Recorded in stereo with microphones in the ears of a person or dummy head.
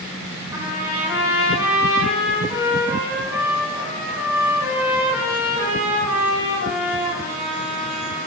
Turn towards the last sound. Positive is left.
turn(degrees=-20)  # may be behind; listen again after turning